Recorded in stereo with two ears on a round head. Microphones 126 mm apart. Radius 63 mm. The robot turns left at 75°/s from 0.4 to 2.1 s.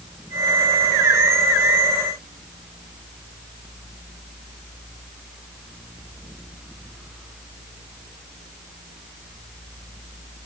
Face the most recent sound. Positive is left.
No sound to turn to.